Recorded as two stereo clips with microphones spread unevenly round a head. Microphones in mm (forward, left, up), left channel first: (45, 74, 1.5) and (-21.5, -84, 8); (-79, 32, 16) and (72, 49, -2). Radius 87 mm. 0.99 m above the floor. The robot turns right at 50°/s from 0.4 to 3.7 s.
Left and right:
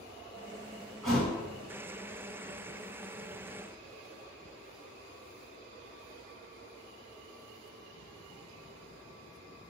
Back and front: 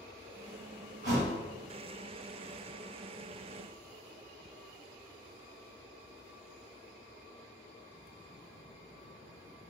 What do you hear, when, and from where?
1.0 s a thud: 25° right, 1.3 m; by 1.4 s 10° right, 1.3 m